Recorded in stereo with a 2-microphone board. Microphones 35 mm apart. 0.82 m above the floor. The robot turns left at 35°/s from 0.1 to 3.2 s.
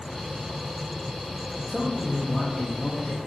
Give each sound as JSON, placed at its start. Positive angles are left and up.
{"t": 1.7, "sound": "a man speaking", "azimuth_deg": 160, "distance_m": 0.9}